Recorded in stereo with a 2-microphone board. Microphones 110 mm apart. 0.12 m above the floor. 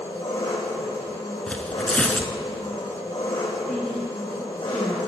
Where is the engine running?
50° left (ahead or behind), 3 m.